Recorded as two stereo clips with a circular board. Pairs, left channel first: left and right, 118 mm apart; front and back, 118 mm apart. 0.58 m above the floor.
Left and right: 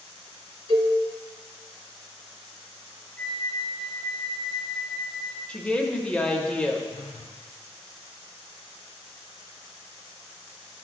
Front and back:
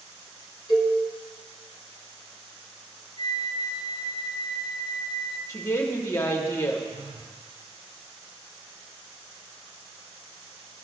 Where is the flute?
175° left, 1.1 m.